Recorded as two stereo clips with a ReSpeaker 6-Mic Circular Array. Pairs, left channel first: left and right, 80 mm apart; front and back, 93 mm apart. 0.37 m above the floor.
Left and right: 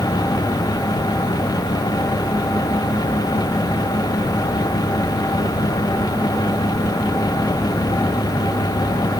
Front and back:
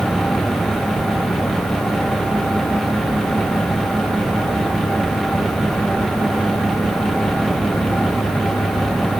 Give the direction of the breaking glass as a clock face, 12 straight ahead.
I don't hear breaking glass.